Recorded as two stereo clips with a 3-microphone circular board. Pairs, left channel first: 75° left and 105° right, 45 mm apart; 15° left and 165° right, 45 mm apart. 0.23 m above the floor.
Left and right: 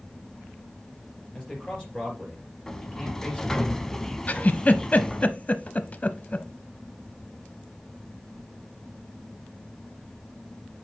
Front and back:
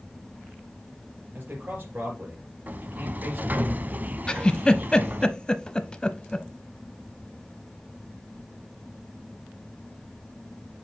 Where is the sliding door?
155° left, 0.8 m.